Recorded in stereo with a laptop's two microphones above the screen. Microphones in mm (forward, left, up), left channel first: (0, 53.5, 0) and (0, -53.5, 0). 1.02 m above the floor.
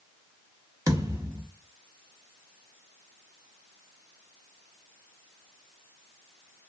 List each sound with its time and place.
0.9 s a thud: 30° right (ahead or behind), 1.1 m